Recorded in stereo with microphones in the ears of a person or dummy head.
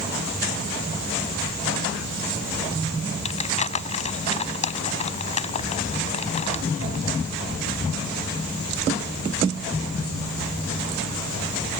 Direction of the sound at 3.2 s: 35° left (ahead or behind).